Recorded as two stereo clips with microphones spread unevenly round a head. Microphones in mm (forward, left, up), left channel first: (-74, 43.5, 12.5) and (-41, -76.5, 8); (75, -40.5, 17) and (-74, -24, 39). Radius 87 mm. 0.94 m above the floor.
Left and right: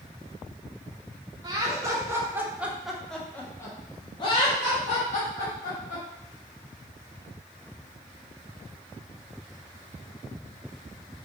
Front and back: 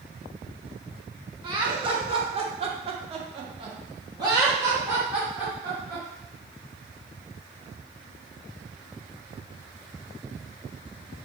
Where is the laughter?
125° right, 1.3 m; by 6.0 s 85° left, 1.5 m.